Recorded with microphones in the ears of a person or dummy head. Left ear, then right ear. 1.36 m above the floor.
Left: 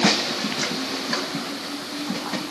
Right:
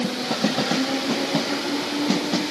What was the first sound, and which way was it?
Only background noise.